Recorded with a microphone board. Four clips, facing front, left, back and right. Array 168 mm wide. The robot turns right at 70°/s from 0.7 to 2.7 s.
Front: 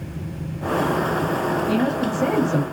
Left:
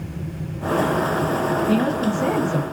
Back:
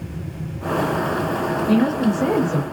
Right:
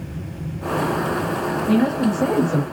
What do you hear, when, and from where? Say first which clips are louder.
1.7 s a woman speaking: right 2 dB, back 3 dB; 125° right, 1.8 m; by 2.6 s 60° right, 1.8 m